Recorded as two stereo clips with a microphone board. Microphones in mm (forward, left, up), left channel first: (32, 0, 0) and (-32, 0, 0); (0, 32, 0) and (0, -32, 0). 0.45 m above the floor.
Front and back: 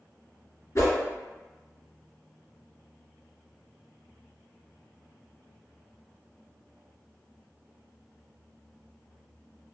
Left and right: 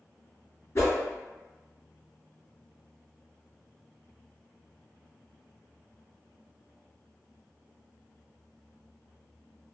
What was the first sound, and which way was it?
A whoosh, 40° left.